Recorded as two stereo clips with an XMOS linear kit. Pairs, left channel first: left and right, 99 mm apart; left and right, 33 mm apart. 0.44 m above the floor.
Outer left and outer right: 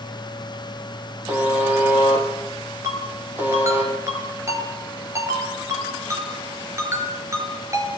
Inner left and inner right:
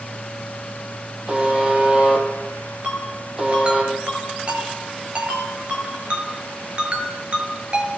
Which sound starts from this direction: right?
A ringtone, at 2.8 s.